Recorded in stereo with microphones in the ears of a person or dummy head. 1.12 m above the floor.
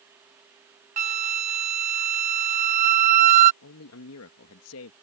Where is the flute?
40° right (ahead or behind).